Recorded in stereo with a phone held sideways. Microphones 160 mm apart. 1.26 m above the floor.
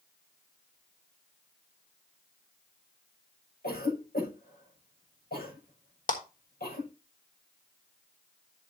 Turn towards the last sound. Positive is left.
turn(degrees=55)  # may be behind; listen again after turning